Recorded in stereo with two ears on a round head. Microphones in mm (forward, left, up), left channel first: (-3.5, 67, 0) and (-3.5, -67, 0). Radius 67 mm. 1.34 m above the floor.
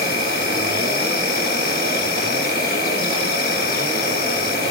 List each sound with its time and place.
0.0 s an insect: 70° left (ahead or behind), 1.3 m